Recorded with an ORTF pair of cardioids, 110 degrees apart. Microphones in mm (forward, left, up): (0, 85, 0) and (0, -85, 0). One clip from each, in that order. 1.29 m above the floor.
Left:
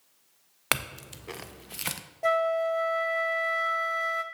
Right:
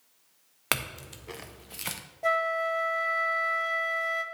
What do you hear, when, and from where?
0.7 s a clink: 15° left, 0.5 m
2.2 s a flute: 10° left, 0.7 m